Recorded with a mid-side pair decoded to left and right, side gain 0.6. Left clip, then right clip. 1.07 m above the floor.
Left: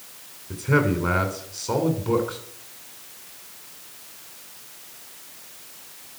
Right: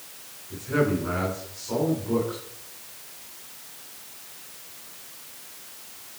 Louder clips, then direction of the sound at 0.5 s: Left 3 dB; 60° left.